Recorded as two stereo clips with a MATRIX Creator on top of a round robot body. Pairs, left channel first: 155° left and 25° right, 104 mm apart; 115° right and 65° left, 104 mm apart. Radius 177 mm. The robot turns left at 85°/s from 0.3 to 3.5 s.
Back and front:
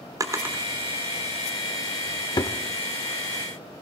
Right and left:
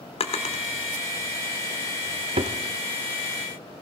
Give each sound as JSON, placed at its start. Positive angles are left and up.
{"t": 0.2, "sound": "a drawer", "azimuth_deg": -85, "distance_m": 1.2}